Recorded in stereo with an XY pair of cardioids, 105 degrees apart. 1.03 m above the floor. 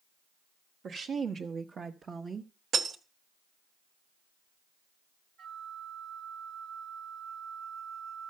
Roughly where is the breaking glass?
Ahead right.